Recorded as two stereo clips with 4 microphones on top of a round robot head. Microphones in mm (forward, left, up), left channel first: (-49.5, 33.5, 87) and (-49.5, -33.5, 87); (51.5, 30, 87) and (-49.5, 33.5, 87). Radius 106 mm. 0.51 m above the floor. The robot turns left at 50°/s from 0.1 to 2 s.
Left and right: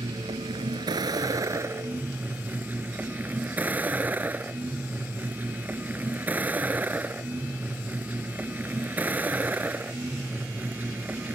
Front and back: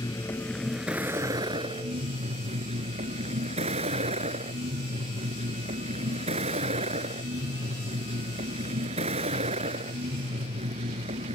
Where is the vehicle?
60° right; by 11.3 s 155° right.